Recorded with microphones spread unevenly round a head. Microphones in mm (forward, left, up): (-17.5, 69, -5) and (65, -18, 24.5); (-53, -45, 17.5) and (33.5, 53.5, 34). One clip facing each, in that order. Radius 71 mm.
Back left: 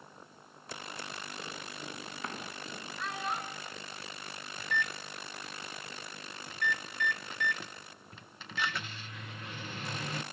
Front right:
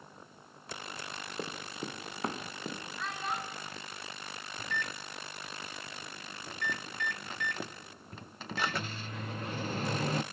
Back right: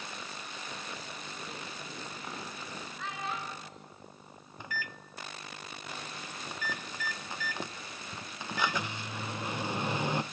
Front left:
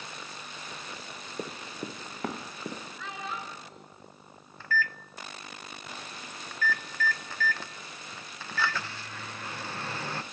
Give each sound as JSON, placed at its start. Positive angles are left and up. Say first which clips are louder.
{"t": 1.4, "sound": "running footsteps", "louder": "front right 4 dB, front left 6 dB", "azimuth_deg": 10, "distance_m": 3.5}
{"t": 3.0, "sound": "a child speaking", "louder": "back left 1 dB, back right 2 dB", "azimuth_deg": 45, "distance_m": 9.5}
{"t": 4.6, "sound": "a microwave", "louder": "back left 3 dB, front left 9 dB", "azimuth_deg": -90, "distance_m": 0.5}